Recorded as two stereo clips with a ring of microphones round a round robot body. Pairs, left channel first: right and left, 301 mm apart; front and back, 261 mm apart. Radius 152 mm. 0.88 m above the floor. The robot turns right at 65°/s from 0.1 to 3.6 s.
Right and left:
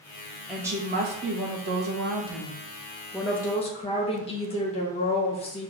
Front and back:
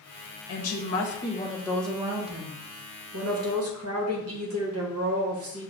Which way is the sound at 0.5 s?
Straight ahead.